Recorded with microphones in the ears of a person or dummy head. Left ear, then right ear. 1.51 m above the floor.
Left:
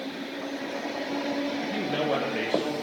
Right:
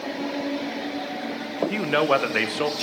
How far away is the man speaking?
About 0.9 m.